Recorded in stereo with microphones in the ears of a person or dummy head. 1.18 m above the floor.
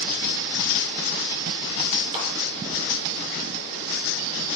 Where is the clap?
35° right (ahead or behind), 3.5 m.